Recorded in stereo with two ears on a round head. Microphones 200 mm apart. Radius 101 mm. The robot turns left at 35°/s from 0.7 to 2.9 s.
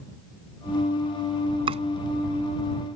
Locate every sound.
1.7 s chopping: 25° right (ahead or behind); by 1.8 s 30° right (ahead or behind)